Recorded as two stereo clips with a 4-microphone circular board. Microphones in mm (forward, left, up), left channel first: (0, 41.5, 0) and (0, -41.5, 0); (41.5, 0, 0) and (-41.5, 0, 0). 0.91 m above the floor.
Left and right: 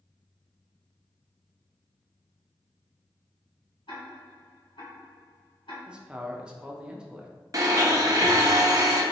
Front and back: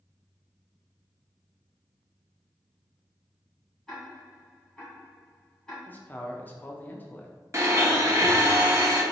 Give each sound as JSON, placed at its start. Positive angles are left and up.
{"t": 3.9, "sound": "ticking", "azimuth_deg": 85, "distance_m": 1.8}
{"t": 5.9, "sound": "a man speaking", "azimuth_deg": -30, "distance_m": 0.6}
{"t": 7.5, "sound": "a blender", "azimuth_deg": -130, "distance_m": 0.8}